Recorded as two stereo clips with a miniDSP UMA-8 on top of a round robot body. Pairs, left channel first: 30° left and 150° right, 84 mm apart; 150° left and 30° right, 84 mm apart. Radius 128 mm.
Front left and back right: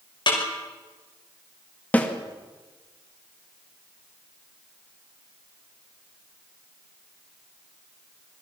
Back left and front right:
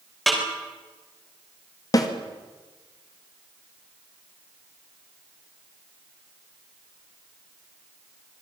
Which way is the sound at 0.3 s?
60° left.